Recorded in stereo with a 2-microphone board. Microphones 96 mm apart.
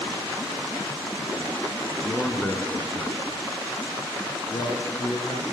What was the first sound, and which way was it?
A man speaking, 5° left (ahead or behind).